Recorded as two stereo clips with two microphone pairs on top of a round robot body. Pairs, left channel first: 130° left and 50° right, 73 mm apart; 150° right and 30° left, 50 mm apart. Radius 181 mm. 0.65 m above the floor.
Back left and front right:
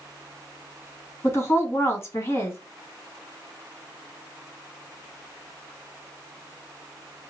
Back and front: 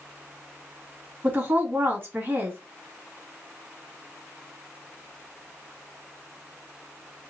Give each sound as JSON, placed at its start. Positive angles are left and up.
{"t": 1.2, "sound": "a woman speaking", "azimuth_deg": 70, "distance_m": 1.8}